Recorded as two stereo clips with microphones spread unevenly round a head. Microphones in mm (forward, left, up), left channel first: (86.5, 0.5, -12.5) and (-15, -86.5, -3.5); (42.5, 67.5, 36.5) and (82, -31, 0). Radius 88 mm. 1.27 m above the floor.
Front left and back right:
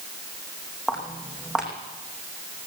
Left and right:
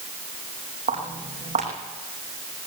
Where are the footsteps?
55° right, 5 m.